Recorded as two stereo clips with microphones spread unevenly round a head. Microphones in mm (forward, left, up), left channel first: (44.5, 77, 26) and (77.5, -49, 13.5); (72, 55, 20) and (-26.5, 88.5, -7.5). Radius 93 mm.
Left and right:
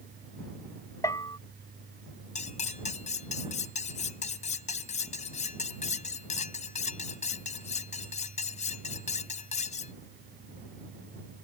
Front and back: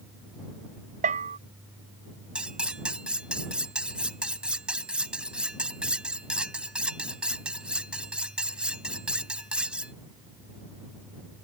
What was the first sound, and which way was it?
A bell, straight behind.